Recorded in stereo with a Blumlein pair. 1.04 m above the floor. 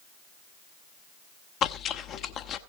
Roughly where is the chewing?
Ahead left.